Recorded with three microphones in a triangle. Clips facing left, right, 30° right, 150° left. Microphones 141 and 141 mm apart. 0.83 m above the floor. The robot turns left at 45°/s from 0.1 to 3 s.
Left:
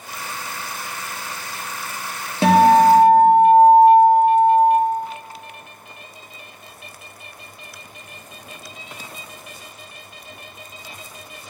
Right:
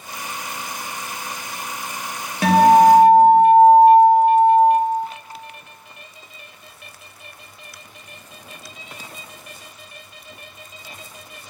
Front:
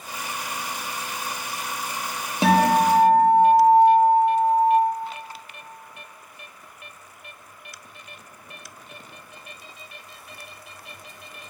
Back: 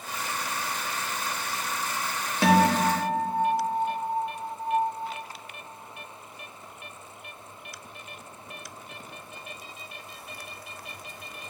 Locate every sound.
2.4 s a guitar: 30° left, 0.7 m; by 4.7 s 5° left, 0.7 m